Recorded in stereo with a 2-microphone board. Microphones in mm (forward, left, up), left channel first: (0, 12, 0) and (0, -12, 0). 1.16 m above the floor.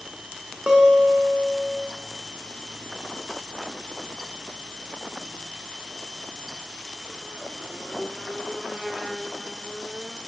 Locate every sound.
0.7 s a guitar: 50° right (ahead or behind), 0.8 m